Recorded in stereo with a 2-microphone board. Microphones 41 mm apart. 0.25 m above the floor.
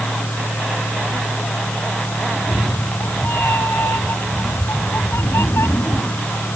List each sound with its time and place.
2.3 s a cat meowing: 55° left (ahead or behind); by 6.6 s 85° left